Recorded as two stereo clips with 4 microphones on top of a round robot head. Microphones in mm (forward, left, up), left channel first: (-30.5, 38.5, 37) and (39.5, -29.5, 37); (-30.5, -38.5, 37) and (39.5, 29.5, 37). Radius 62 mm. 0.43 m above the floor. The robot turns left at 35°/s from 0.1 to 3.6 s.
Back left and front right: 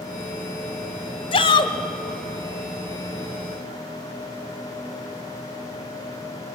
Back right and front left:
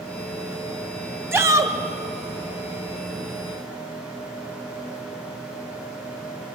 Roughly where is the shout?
Left.